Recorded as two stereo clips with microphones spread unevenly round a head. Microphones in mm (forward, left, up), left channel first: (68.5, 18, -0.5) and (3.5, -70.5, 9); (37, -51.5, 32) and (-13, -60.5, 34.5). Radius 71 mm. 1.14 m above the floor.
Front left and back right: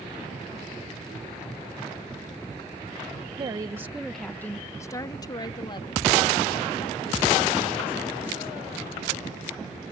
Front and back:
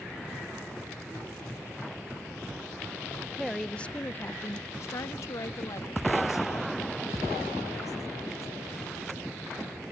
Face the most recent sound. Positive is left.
turn(degrees=20)